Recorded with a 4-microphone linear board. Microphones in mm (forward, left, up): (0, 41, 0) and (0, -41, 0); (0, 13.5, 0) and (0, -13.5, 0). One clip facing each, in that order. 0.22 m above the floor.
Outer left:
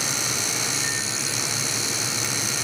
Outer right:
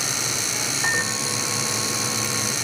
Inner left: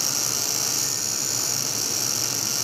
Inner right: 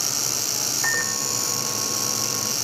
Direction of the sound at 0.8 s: 80° right.